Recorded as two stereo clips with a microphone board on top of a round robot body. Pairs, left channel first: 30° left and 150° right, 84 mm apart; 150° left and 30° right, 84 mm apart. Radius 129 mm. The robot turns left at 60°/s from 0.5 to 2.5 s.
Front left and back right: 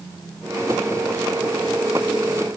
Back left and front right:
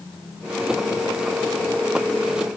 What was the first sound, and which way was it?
Only background noise.